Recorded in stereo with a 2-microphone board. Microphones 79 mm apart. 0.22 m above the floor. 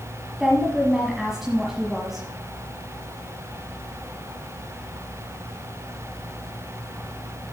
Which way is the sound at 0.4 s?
5° right (ahead or behind).